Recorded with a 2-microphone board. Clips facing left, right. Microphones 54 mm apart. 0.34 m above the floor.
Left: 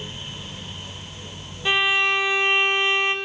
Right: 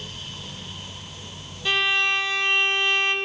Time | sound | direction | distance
1.6 | a violin | 20° left (ahead or behind) | 1.8 m